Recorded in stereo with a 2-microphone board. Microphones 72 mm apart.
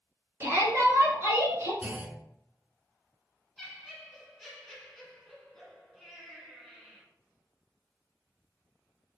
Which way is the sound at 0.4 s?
35° right (ahead or behind).